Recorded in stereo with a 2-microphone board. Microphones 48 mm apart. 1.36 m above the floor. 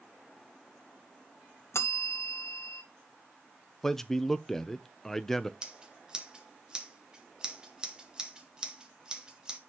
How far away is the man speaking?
About 0.7 m.